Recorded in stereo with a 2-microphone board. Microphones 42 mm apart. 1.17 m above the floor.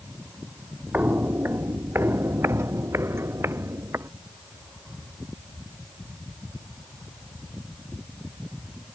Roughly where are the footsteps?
Right.